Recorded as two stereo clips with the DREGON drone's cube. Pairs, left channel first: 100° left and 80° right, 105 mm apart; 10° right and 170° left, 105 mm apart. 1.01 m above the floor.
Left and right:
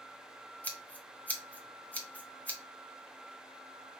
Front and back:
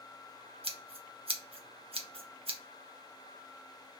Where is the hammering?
No hammering in this recording.